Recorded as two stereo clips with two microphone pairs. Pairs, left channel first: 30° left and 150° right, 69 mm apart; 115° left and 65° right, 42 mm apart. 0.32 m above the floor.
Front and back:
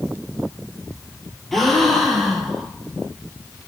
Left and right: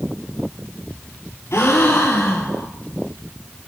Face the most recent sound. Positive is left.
turn(degrees=120)